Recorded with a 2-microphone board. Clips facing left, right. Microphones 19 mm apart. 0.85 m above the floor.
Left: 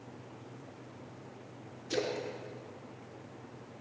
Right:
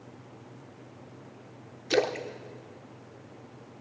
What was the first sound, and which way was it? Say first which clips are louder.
A splash: right 7 dB; 70° right (ahead or behind).